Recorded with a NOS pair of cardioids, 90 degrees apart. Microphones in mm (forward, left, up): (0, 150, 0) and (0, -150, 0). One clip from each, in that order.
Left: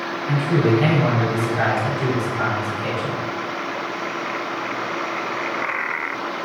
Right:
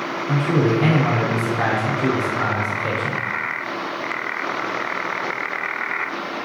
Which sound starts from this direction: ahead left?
A man speaking, at 0.3 s.